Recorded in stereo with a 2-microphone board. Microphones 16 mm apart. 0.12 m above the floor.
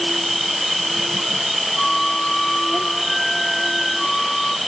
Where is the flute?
30° left (ahead or behind).